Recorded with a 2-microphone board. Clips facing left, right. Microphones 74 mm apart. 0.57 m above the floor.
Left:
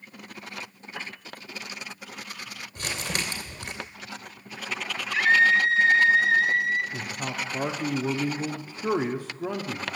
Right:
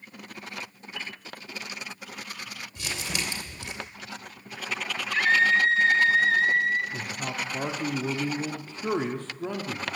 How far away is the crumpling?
About 3 m.